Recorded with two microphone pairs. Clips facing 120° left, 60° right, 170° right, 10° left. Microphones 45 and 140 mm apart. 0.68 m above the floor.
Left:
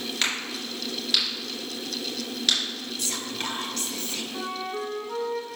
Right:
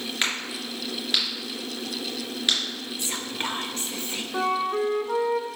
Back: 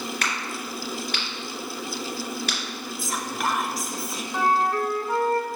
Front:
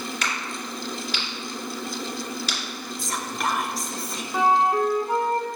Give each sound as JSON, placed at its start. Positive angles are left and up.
{"t": 0.2, "sound": "a crack", "azimuth_deg": -135, "distance_m": 2.5}
{"t": 3.0, "sound": "whispering", "azimuth_deg": -85, "distance_m": 0.6}
{"t": 4.3, "sound": "a flute", "azimuth_deg": -60, "distance_m": 0.6}